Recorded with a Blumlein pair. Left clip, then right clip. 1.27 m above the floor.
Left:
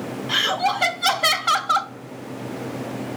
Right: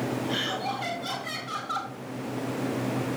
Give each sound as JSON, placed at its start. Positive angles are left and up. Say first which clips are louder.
{"t": 0.3, "sound": "laughter", "louder": "left 13 dB", "azimuth_deg": 30, "distance_m": 1.6}